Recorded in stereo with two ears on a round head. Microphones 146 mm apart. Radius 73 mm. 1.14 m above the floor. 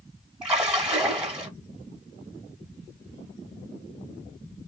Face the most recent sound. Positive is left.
turn(degrees=-5)  # may be behind; listen again after turning